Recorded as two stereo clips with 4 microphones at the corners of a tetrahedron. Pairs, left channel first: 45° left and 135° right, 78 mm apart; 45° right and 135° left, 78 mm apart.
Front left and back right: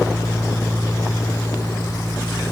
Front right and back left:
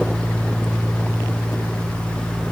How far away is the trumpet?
I don't hear a trumpet.